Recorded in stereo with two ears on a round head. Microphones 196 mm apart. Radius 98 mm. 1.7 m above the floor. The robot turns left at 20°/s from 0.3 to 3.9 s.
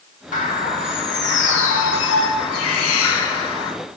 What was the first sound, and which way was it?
A bird, 140° left.